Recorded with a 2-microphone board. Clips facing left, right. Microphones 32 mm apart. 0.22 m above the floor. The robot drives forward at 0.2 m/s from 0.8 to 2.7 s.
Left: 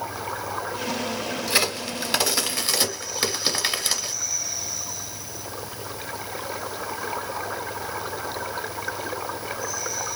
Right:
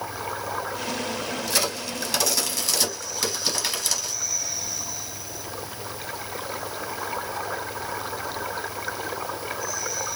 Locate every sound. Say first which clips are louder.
1.5 s a crack: left 4 dB; 35° left (ahead or behind), 0.7 m; by 4.1 s 30° left (ahead or behind), 0.8 m